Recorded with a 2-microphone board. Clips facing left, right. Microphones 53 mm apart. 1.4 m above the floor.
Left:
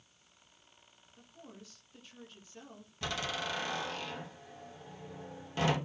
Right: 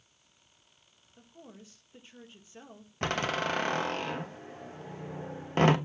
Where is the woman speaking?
25° right (ahead or behind), 2 m.